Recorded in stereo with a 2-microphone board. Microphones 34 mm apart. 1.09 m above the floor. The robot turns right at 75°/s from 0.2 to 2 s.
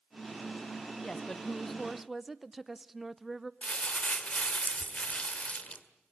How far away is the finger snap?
I don't hear a finger snap.